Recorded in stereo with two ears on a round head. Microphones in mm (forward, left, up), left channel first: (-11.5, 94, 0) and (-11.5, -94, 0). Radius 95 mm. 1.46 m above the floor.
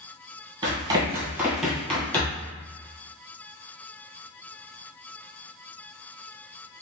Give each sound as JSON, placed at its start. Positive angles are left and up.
{"t": 0.6, "sound": "running footsteps", "side_deg": -25, "distance_m": 1.5}